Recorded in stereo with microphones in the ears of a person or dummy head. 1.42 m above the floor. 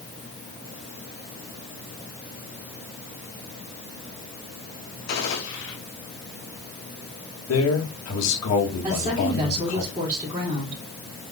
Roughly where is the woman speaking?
Right.